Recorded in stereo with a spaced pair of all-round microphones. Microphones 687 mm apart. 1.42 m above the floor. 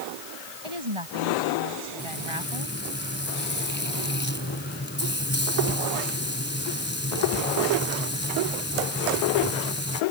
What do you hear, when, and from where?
0.6 s a woman speaking: 45° right (ahead or behind)
2.0 s frying: 15° left (ahead or behind)